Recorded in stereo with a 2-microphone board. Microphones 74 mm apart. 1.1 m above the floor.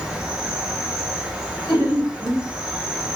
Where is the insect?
10° right (ahead or behind), 0.7 m.